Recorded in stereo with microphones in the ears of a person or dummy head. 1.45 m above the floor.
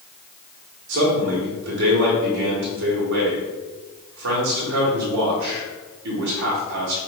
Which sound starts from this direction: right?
A man speaking, at 0.9 s.